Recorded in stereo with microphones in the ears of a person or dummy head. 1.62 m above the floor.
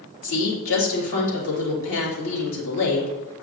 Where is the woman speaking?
75° left (ahead or behind), 3 m.